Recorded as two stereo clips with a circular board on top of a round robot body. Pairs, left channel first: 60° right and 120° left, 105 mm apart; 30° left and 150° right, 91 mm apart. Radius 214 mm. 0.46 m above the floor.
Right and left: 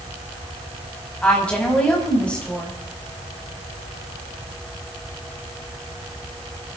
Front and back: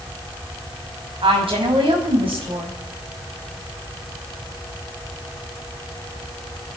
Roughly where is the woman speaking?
Behind right.